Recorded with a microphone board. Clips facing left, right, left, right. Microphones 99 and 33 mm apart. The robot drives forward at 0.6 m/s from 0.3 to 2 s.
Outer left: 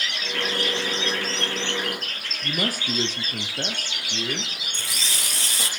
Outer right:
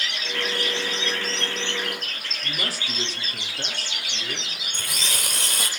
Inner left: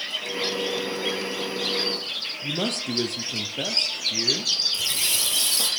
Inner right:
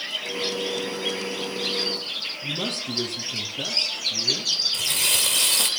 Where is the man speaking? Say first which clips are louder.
Outer left 5 dB, inner left 3 dB; 55° left (ahead or behind), 3.5 m.